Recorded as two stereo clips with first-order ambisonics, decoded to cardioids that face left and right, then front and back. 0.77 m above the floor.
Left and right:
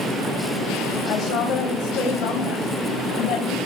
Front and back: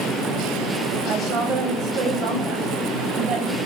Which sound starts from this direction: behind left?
A woman speaking, at 1.1 s.